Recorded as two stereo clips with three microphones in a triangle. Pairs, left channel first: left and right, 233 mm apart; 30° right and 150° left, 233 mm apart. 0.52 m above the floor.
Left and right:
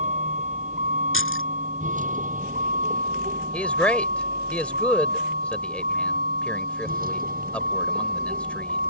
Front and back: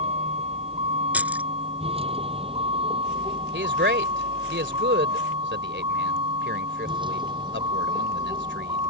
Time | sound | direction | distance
0.0 | a vehicle | 145° right | ?
1.1 | keys jangling | 65° left | ?
3.5 | a man speaking | 175° left | ?